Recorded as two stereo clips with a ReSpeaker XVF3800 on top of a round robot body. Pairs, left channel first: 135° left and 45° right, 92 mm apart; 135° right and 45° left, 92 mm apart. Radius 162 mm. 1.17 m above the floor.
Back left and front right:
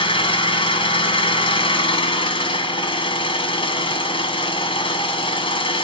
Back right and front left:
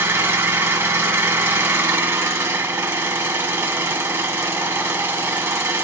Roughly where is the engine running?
Left.